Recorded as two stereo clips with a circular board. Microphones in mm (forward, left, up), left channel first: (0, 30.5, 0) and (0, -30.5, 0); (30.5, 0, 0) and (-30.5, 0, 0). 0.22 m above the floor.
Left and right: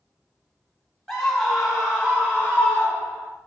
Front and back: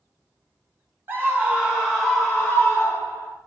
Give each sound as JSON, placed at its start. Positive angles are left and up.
{"t": 1.1, "sound": "a scream", "azimuth_deg": 170, "distance_m": 1.3}